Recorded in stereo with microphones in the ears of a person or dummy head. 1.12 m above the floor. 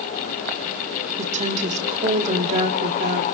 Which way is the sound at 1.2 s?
40° right (ahead or behind).